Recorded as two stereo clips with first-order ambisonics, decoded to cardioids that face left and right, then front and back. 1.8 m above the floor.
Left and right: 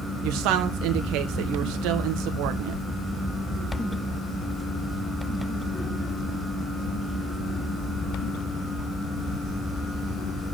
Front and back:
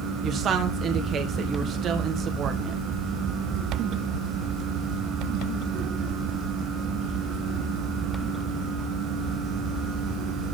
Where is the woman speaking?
120° right, 1.6 m.